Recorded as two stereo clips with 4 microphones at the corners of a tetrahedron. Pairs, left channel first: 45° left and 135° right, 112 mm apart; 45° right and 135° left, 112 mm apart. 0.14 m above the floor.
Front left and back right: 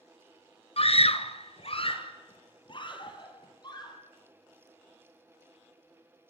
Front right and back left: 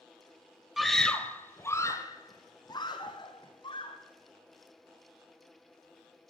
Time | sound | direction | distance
0.8 | a scream | 45° left | 2.5 m